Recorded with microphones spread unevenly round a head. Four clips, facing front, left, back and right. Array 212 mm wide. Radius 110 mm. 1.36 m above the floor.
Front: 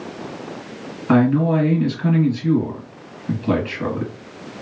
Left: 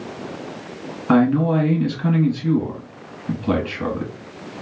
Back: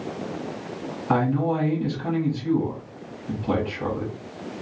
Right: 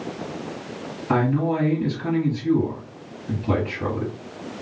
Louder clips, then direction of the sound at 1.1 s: Left 5 dB, front 7 dB; 45° left.